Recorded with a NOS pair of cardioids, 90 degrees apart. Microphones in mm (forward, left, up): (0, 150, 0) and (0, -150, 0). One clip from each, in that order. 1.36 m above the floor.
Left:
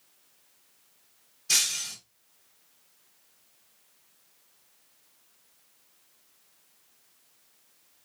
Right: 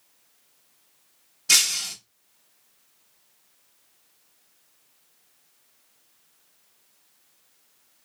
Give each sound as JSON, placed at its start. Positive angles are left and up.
{"t": 1.5, "sound": "breaking glass", "azimuth_deg": -70, "distance_m": 1.5}